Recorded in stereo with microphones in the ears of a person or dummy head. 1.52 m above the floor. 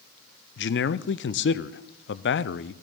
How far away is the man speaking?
About 0.5 m.